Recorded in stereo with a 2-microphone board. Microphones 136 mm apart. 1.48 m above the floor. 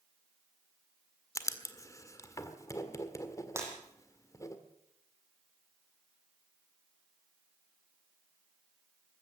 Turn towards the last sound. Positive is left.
turn(degrees=-20)  # may be behind; listen again after turning